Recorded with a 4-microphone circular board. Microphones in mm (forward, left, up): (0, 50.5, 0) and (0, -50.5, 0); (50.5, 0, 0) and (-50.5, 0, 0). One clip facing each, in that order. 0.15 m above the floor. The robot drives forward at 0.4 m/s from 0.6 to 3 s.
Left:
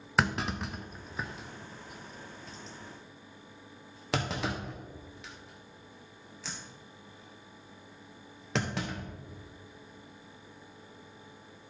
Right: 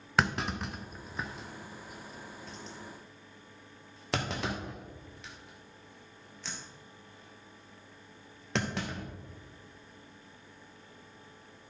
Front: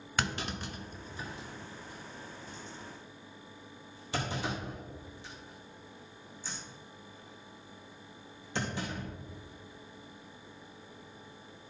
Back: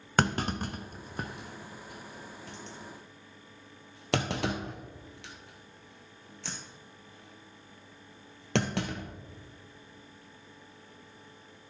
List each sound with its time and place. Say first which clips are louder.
0.2 s a clunk: even, back 7 dB; straight behind, 0.5 m